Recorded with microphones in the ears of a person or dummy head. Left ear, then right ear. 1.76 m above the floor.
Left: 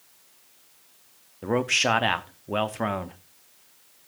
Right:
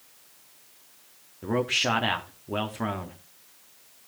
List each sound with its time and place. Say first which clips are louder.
1.4 s a man speaking: left 3 dB; 20° left (ahead or behind), 0.7 m